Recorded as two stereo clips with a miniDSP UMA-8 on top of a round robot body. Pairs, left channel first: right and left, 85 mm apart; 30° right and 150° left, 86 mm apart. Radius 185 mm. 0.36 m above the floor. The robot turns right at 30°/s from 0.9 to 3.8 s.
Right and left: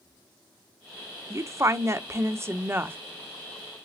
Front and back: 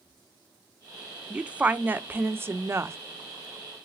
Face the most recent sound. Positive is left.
turn(degrees=155)